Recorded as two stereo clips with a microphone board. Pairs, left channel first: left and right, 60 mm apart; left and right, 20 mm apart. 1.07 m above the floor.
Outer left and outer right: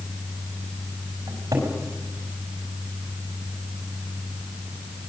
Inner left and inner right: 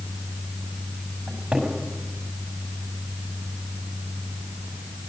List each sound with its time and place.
1.3 s a cupboard door: 85° right, 6.5 m